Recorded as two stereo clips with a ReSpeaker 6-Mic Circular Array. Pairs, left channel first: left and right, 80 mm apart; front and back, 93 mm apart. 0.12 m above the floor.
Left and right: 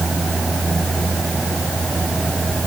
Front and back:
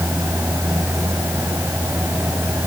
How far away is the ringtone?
I don't hear a ringtone.